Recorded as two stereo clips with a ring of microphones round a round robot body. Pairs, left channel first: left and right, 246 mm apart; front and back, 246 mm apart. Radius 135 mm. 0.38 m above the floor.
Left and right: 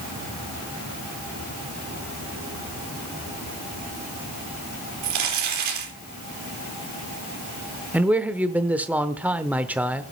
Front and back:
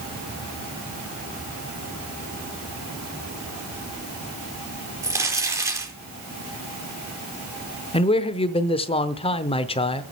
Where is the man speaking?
15° right, 0.8 m.